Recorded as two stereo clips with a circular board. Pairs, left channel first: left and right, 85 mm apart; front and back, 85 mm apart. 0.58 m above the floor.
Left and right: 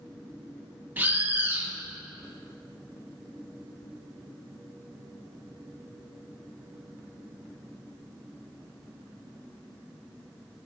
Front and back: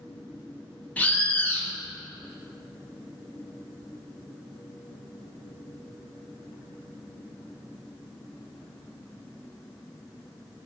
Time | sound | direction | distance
1.0 | a bird | 50° right | 0.6 m